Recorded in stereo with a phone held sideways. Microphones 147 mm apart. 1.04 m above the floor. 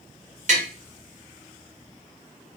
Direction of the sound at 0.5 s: 55° right (ahead or behind).